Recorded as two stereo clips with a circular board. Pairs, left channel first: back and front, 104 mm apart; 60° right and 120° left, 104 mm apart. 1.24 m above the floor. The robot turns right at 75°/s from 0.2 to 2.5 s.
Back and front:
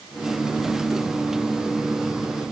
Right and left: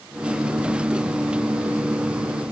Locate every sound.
Only background noise.